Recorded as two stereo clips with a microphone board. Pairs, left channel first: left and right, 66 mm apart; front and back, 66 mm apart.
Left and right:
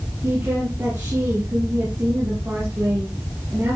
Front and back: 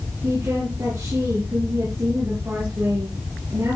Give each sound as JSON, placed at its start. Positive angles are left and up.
{"t": 0.2, "sound": "a woman speaking", "azimuth_deg": -140, "distance_m": 4.0}